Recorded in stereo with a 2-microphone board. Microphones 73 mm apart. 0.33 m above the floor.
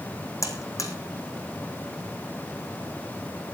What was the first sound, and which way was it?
A buzzer, 45° left (ahead or behind).